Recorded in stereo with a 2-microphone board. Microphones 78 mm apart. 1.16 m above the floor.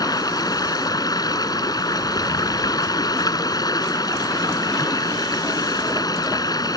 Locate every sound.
0.0 s running water: 60° left (ahead or behind)